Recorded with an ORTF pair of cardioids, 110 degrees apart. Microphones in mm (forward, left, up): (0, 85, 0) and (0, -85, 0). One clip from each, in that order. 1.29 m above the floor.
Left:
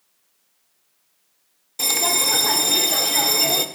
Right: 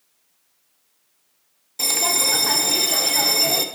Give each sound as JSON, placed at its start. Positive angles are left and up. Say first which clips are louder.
{"t": 1.8, "sound": "a bell", "louder": "even", "azimuth_deg": 10, "distance_m": 0.6}